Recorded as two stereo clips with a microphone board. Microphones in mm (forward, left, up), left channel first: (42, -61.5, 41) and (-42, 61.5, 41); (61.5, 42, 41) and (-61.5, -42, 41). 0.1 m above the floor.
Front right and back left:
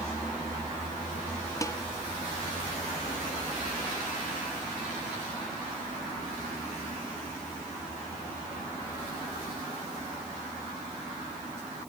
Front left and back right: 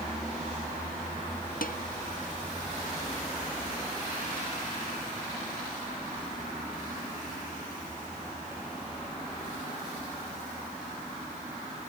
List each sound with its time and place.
1.6 s dishes clattering: 15° left